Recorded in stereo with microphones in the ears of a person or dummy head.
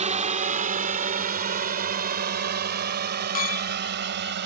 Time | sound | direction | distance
0.0 | a drone | 40° right (ahead or behind) | ?
3.4 | a clink | 45° left (ahead or behind) | ?